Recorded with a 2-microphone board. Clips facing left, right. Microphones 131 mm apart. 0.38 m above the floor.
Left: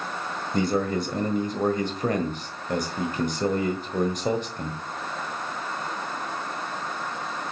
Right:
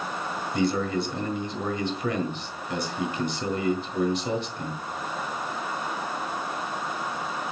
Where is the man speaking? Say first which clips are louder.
Left 1 dB; 45° left (ahead or behind), 1.6 m.